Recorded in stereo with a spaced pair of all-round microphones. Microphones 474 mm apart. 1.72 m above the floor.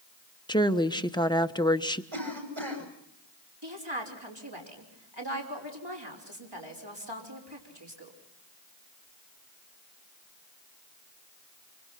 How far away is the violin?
I don't hear a violin.